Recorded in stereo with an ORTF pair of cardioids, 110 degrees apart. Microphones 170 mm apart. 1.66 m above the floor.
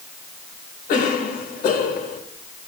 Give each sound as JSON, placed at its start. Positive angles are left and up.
{"t": 0.9, "sound": "a cough", "azimuth_deg": 55, "distance_m": 2.5}